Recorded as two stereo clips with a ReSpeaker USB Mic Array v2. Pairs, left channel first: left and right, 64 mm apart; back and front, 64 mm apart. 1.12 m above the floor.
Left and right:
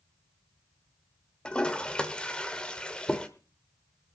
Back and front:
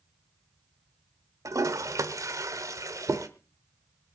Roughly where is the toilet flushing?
Ahead.